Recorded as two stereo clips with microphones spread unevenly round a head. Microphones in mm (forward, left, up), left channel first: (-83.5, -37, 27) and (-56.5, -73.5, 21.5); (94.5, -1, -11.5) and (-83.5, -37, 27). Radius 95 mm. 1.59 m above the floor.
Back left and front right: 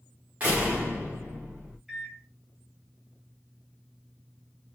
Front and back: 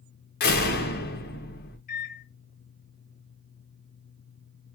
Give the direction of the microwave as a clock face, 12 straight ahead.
11 o'clock.